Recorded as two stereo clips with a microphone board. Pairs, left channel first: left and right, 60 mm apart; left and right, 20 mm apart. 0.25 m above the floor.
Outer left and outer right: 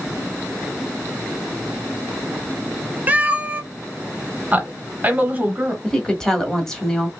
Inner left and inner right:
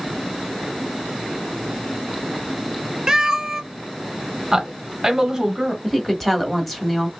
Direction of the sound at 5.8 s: 10° left (ahead or behind).